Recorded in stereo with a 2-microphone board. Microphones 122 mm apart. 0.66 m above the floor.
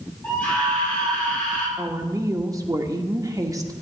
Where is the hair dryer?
I don't hear a hair dryer.